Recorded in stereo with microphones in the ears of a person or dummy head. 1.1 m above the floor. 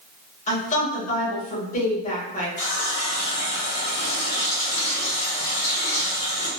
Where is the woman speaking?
40° left (ahead or behind), 1.4 m.